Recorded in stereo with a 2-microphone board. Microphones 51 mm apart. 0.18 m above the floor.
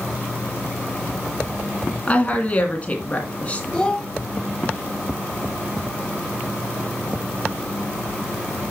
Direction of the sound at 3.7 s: 20° left (ahead or behind).